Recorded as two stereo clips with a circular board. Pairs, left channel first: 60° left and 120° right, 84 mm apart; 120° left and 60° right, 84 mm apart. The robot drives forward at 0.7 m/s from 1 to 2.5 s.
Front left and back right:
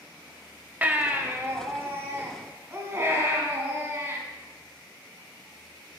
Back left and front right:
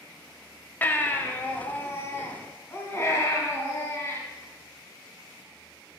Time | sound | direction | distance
0.8 | a baby crying | 175° left | 0.7 m